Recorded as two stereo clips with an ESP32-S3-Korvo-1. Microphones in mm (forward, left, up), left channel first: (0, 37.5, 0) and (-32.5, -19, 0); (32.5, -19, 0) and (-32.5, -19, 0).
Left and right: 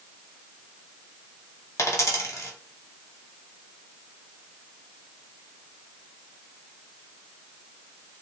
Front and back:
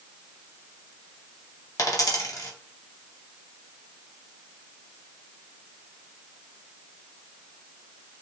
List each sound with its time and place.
1.8 s a dropped coin: 25° left, 0.9 m